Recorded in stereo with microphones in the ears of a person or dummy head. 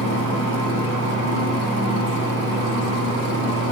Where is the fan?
70° right (ahead or behind), 1.0 m.